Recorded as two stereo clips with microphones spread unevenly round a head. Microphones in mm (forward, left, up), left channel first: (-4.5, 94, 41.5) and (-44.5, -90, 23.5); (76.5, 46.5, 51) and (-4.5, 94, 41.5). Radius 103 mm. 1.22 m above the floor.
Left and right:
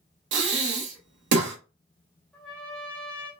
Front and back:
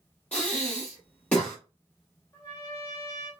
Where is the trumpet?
Straight ahead, 0.8 m.